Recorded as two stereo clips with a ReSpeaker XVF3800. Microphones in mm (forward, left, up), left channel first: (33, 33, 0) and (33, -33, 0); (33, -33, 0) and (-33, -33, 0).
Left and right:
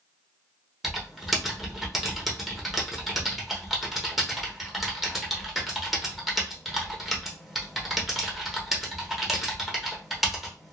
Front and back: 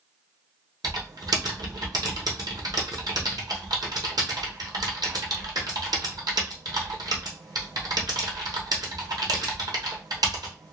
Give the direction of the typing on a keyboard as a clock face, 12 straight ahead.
6 o'clock.